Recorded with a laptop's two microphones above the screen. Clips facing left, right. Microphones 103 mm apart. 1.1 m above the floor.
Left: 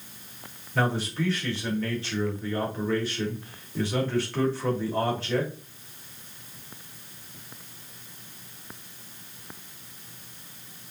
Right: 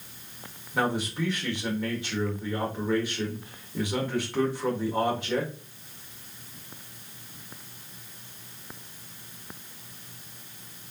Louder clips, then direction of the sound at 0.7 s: Left 1 dB; 15° right (ahead or behind).